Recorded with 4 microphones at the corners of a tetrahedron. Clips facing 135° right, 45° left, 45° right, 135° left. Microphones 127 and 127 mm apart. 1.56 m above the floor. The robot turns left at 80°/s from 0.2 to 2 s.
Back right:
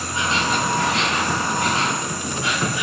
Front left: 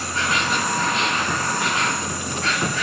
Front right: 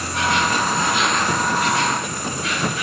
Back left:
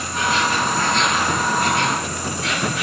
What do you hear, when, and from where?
0.0 s an insect: 65° right, 1.7 m; by 2.8 s 150° left, 1.7 m